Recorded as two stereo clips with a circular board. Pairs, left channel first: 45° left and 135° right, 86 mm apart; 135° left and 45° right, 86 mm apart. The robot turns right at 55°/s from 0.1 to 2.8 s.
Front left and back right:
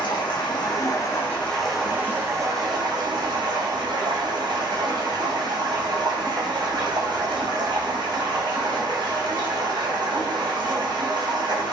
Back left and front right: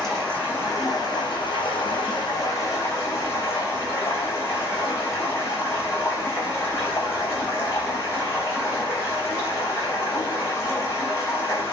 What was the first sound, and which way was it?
Running water, 50° left.